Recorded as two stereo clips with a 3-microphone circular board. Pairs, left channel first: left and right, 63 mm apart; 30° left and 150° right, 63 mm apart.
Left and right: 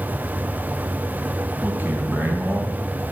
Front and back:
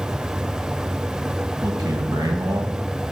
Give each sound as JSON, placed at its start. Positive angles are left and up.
{"t": 1.6, "sound": "a man speaking", "azimuth_deg": -150, "distance_m": 3.5}